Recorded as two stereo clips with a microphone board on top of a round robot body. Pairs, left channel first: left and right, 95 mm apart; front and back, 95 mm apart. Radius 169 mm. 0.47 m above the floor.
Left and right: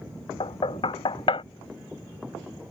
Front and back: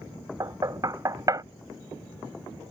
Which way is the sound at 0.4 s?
125° left.